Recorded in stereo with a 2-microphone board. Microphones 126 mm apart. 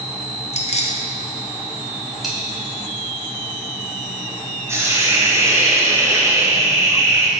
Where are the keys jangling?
55° left (ahead or behind), 0.7 m.